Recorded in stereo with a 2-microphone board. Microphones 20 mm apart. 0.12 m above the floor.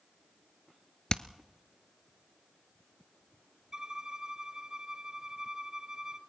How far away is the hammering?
About 0.7 m.